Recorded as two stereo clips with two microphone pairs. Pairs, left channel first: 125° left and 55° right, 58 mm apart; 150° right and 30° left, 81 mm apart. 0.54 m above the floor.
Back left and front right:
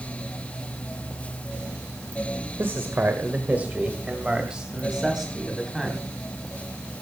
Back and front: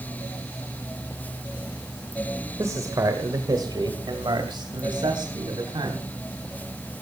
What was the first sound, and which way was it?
A man speaking, 15° right.